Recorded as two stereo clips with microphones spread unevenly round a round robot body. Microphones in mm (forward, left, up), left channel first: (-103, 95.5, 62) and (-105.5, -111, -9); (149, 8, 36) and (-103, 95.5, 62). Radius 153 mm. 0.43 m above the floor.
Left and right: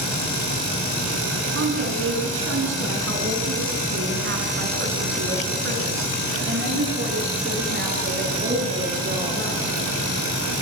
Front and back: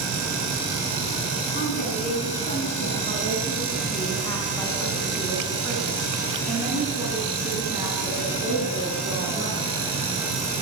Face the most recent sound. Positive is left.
turn(degrees=-130)